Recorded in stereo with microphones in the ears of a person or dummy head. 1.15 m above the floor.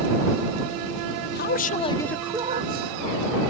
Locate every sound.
1.4 s a man speaking: 55° left (ahead or behind); by 3.5 s 65° right (ahead or behind)